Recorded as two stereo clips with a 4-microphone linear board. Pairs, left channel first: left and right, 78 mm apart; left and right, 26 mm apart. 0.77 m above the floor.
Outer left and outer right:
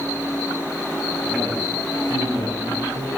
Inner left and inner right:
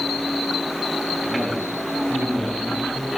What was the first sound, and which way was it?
A man speaking, 35° left (ahead or behind).